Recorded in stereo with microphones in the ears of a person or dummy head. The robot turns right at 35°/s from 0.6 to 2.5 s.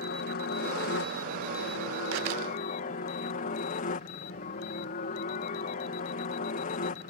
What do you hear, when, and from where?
0.0 s a helicopter: 60° left; by 7.1 s 125° left